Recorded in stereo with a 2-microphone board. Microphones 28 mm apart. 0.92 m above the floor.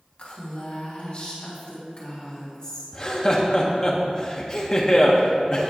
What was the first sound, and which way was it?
A woman speaking, 55° left (ahead or behind).